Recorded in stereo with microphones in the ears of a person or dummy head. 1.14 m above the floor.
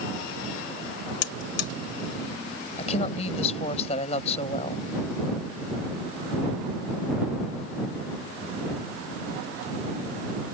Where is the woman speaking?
45° left (ahead or behind).